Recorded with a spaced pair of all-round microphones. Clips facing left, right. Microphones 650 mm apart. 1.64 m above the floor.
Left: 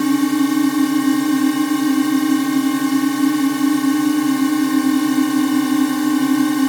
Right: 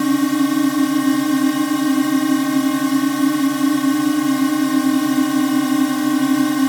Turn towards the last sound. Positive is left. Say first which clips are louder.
# even
turn(degrees=-10)  # may be behind; listen again after turning